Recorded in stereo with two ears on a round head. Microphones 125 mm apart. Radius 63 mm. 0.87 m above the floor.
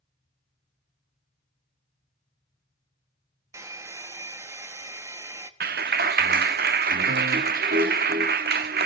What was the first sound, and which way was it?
A hair dryer, 20° right (ahead or behind).